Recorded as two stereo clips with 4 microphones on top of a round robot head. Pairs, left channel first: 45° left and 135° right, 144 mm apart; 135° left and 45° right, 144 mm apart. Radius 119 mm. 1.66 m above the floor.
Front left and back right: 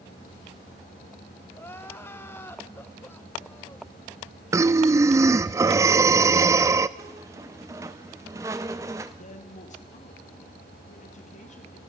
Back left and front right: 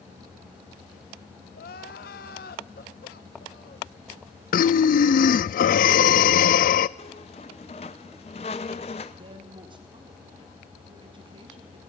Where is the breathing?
160° left, 0.5 m.